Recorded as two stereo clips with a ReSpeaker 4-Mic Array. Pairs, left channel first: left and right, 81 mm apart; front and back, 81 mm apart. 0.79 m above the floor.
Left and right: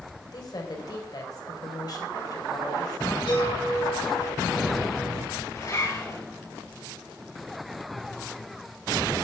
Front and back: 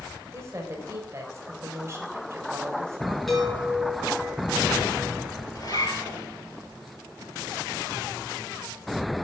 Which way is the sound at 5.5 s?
40° left.